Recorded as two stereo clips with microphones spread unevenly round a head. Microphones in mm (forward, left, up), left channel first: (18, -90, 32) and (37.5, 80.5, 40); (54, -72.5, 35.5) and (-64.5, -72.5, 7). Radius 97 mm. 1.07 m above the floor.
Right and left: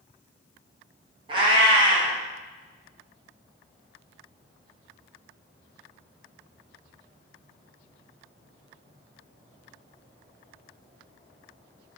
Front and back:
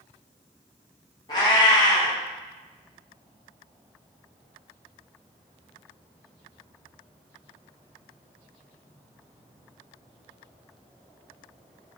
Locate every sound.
1.3 s a cat meowing: 35° left, 0.6 m